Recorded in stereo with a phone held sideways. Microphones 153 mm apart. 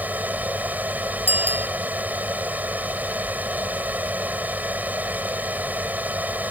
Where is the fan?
10° right (ahead or behind).